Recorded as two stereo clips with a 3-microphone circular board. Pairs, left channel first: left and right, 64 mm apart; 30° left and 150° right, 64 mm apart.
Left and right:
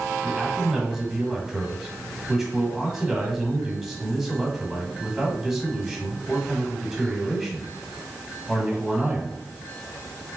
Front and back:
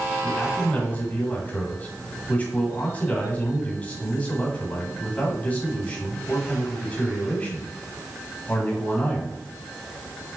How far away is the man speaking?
About 1.5 m.